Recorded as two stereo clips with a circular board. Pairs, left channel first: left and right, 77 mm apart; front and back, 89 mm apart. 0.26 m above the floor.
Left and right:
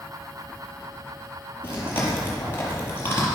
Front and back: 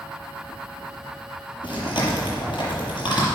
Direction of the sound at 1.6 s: 30° left.